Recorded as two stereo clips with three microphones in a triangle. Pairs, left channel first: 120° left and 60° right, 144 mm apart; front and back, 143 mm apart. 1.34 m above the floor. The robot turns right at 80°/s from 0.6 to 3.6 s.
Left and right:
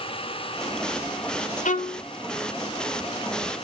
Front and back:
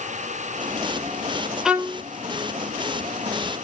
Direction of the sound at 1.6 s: 95° left.